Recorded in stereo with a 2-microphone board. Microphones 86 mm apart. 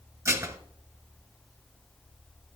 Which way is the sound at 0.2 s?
35° right (ahead or behind).